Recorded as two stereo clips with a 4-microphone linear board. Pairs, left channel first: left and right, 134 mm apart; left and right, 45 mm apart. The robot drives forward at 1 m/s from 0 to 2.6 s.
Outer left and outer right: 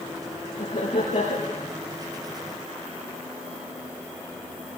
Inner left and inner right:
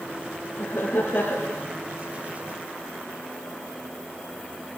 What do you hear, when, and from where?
0.6 s laughter: 70° left (ahead or behind), 6.5 m; by 1.7 s 80° left, 6 m